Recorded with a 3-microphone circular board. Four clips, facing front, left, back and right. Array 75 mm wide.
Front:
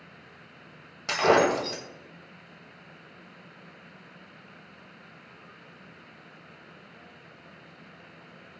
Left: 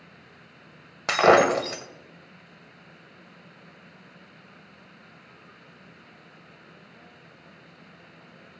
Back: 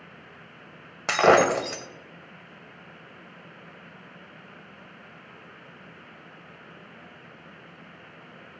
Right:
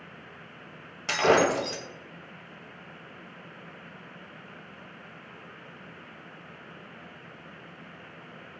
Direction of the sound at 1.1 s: 130° left.